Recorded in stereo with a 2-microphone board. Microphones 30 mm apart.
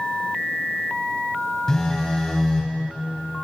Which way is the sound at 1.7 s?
20° left (ahead or behind).